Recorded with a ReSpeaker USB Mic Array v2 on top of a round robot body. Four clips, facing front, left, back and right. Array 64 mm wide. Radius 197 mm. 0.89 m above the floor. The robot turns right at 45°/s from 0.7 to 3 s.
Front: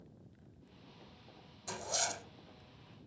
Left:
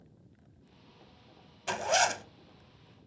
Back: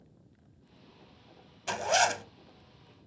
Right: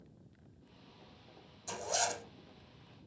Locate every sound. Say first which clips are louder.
1.7 s a zipper: left 8 dB, back 13 dB; 120° left, 0.9 m; by 2.2 s 150° left, 0.9 m